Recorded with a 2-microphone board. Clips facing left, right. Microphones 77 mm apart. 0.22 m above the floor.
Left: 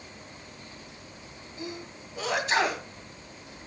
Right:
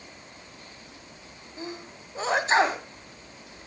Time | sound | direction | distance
1.6 | a sneeze | 30° right (ahead or behind) | 1.7 m